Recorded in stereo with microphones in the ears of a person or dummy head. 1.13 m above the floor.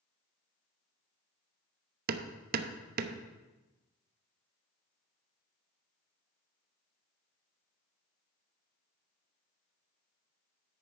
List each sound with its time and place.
2.1 s hammering: 55° right (ahead or behind), 0.9 m